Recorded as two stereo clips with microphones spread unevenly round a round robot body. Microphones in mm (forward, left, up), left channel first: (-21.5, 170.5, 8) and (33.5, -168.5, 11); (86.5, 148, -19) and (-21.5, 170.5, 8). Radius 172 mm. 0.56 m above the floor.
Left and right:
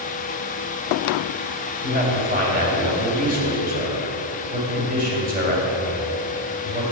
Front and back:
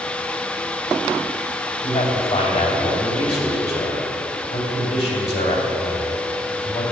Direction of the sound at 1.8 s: 15° right.